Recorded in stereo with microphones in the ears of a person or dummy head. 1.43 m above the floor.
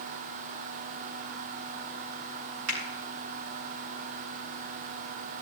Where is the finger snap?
80° right, 3.5 m.